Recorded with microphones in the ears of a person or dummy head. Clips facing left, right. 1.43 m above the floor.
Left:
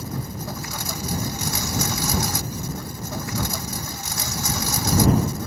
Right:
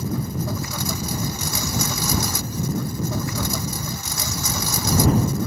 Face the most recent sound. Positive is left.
turn(degrees=-85)